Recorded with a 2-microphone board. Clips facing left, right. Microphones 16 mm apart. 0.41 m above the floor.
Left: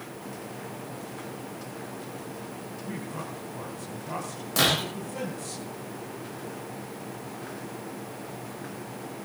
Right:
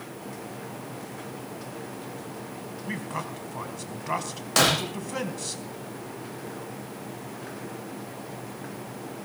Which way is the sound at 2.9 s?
50° right (ahead or behind).